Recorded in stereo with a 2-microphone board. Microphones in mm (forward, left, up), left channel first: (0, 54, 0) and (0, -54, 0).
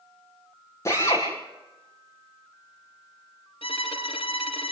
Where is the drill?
30° left (ahead or behind), 8.5 m.